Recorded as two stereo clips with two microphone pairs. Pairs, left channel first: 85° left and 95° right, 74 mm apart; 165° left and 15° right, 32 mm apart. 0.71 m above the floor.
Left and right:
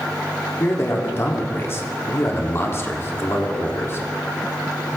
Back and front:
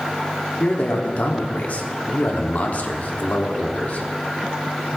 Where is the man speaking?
135° left, 1.4 m.